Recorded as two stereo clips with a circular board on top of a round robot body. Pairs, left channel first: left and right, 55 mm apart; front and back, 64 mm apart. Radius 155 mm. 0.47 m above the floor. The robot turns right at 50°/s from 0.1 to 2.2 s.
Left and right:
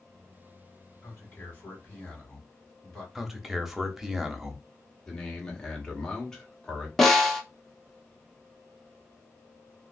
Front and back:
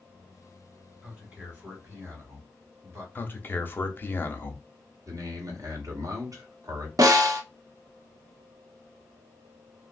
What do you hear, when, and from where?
1.0 s a man speaking: 110° left, 1.8 m; by 3.0 s 170° left, 1.8 m
3.1 s a man speaking: 10° right, 0.9 m
5.1 s a man speaking: 165° left, 1.3 m
7.0 s a snare drum: 170° left, 0.8 m